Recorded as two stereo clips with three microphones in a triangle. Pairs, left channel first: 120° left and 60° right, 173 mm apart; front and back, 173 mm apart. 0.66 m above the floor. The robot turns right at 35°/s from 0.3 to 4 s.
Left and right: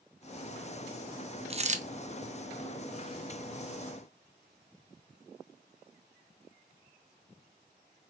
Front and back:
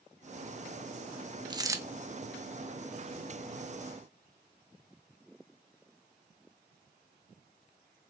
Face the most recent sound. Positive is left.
turn(degrees=-30)